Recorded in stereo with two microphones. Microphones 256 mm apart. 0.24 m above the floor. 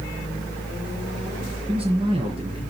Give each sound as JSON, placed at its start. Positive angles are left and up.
{"t": 1.7, "sound": "a man speaking", "side_deg": -20, "distance_m": 4.0}